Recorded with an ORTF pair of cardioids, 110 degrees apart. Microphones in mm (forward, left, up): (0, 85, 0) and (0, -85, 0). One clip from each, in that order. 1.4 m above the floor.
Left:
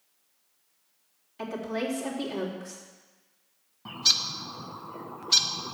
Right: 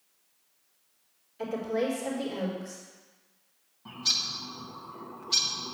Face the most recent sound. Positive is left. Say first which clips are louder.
# left 4 dB
turn(degrees=40)